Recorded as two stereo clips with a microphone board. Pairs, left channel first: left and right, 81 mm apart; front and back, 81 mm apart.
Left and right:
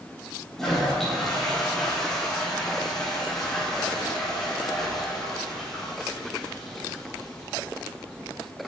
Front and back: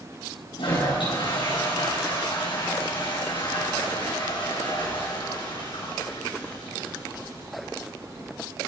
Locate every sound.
0.6 s a toilet flushing: 5° left, 7 m